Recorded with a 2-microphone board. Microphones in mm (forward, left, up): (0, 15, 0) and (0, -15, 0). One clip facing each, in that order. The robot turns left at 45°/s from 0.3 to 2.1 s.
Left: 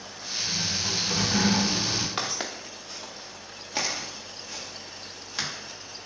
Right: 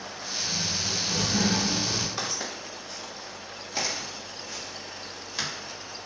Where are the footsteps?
60° left (ahead or behind), 1.3 m; by 5.5 s 20° left (ahead or behind), 2.5 m.